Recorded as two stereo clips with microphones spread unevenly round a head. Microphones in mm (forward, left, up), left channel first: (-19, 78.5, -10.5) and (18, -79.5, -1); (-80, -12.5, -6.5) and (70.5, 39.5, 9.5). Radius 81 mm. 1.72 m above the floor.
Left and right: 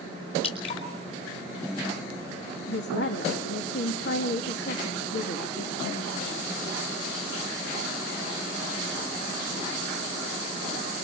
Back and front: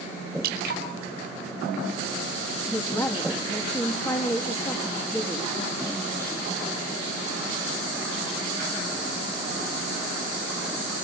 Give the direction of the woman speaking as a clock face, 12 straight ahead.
8 o'clock.